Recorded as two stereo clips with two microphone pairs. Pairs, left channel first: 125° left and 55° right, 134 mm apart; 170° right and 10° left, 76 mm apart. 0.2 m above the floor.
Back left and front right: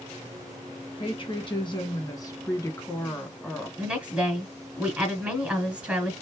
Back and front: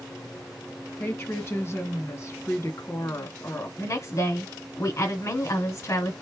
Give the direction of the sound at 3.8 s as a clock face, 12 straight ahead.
4 o'clock.